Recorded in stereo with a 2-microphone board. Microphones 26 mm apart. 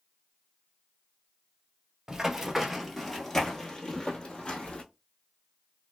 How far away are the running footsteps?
About 0.9 m.